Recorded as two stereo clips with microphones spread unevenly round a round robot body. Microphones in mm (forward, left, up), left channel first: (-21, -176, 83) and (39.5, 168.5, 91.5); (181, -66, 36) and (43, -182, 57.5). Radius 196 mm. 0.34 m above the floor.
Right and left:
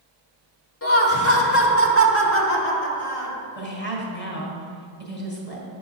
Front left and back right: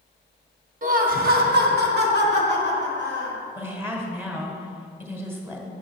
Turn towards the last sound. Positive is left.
turn(degrees=-60)